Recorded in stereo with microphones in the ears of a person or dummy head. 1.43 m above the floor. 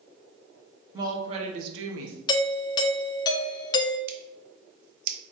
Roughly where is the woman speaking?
Right.